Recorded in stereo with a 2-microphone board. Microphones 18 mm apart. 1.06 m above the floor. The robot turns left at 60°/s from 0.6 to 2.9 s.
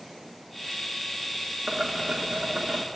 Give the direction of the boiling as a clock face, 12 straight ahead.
1 o'clock.